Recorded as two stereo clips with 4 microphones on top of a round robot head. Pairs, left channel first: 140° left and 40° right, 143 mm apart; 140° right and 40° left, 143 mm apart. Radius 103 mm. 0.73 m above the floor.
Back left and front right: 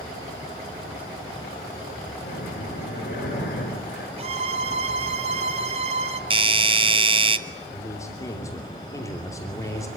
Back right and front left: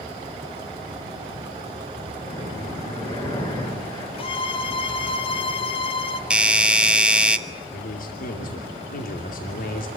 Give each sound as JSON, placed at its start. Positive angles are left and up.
{"t": 2.2, "sound": "breathing", "azimuth_deg": 160, "distance_m": 8.5}
{"t": 4.2, "sound": "a violin", "azimuth_deg": -85, "distance_m": 1.4}
{"t": 6.3, "sound": "a doorbell", "azimuth_deg": -40, "distance_m": 1.3}
{"t": 7.7, "sound": "a man speaking", "azimuth_deg": -150, "distance_m": 2.5}